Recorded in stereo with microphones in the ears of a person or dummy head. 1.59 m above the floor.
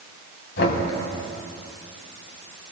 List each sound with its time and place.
0.6 s knocking: 60° left (ahead or behind), 4 m